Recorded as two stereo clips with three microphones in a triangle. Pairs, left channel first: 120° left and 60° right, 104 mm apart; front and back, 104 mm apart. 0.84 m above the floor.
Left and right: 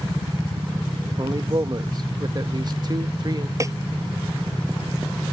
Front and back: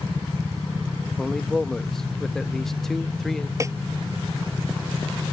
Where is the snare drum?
120° right.